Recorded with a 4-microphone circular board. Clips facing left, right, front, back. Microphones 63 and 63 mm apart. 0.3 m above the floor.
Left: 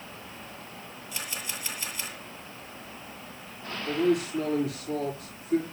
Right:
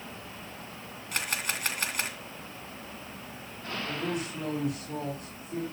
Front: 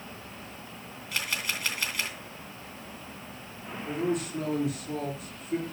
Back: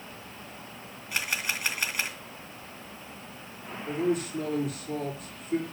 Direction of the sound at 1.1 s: 110° right.